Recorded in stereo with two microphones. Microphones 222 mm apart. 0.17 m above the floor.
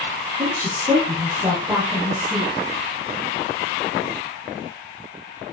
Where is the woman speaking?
15° right (ahead or behind), 6 m.